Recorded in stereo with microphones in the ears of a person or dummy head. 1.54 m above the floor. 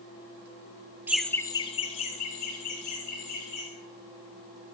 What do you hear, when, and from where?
1.1 s laughter: 15° right (ahead or behind), 0.8 m; by 3.6 s 50° left (ahead or behind), 4 m